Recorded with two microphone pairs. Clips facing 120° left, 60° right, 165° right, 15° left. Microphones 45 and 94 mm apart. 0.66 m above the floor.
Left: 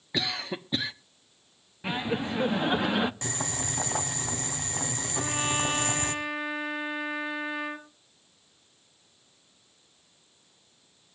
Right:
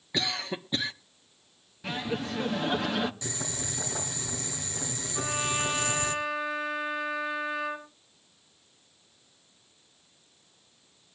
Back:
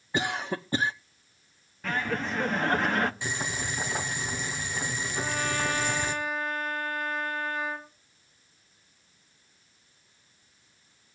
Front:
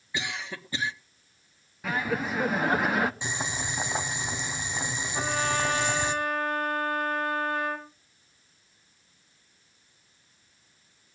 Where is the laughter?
85° left, 0.9 m.